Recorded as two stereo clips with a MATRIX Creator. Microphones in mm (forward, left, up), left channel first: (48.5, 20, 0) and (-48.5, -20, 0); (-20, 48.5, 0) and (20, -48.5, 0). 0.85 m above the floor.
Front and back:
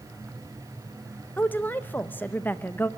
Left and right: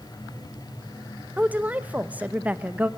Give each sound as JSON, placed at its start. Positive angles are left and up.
{"t": 1.4, "sound": "a woman speaking", "azimuth_deg": -20, "distance_m": 0.6}